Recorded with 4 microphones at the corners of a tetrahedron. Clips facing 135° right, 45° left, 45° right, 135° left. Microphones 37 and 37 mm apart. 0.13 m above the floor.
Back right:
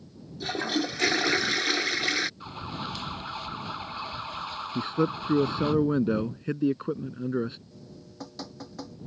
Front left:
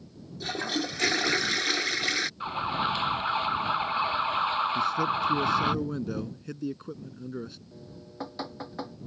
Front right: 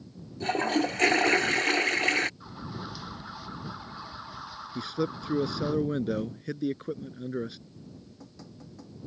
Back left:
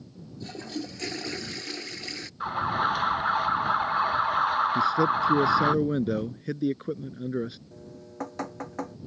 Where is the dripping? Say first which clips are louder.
Front left 2 dB, back left 6 dB; 110° left.